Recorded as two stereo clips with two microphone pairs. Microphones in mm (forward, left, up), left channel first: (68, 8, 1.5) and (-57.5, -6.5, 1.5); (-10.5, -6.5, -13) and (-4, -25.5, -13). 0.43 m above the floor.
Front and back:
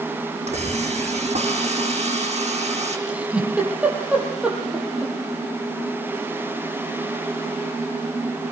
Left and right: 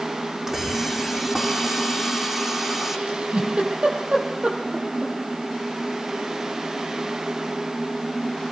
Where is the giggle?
95° right, 7.5 m.